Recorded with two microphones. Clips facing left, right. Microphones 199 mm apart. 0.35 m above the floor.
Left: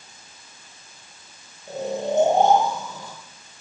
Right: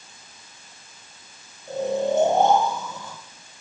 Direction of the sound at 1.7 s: 20° left (ahead or behind).